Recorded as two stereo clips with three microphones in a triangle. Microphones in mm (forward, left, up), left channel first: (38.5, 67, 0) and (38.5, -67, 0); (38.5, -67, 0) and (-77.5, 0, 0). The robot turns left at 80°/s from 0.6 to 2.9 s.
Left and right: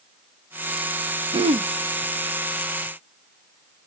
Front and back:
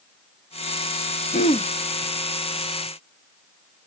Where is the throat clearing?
45° right, 0.5 m; by 1.7 s 70° right, 0.5 m.